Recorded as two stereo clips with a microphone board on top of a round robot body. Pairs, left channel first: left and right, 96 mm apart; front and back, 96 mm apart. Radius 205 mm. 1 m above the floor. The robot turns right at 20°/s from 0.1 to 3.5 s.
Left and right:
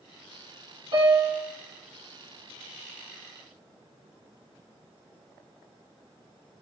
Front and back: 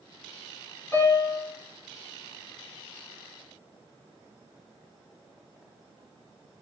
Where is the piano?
65° right, 3.5 m; by 1.4 s 55° right, 3.5 m.